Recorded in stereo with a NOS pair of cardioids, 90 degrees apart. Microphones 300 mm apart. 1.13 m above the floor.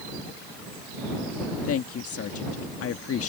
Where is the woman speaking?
50° left.